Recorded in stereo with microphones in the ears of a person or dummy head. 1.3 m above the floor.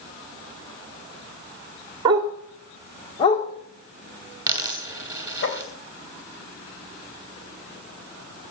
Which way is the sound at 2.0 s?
25° right (ahead or behind).